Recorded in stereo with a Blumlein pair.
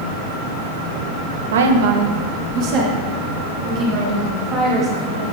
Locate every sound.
1.5 s a woman speaking: 65° right, 0.8 m; by 5.2 s 30° right, 4 m